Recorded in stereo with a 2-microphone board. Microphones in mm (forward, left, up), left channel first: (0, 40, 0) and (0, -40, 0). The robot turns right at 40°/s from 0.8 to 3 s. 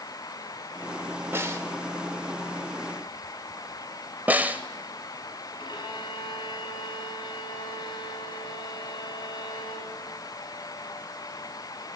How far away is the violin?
About 3.5 m.